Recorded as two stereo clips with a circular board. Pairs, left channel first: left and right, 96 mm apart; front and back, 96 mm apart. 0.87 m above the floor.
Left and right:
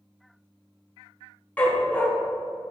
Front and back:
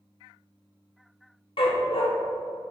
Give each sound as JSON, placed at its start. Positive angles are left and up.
{"t": 1.6, "sound": "a dog barking", "azimuth_deg": 15, "distance_m": 1.0}